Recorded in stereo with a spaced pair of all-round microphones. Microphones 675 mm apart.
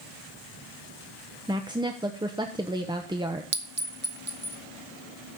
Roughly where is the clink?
Centre.